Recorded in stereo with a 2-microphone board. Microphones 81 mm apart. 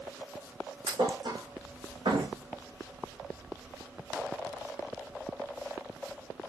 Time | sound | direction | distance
0.9 | a thud | 70° right (ahead or behind) | 3 m